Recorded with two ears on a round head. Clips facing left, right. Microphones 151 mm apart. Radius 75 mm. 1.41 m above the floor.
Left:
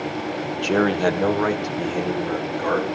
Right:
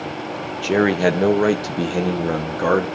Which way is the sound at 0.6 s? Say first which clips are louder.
Right 3 dB; 5° right (ahead or behind).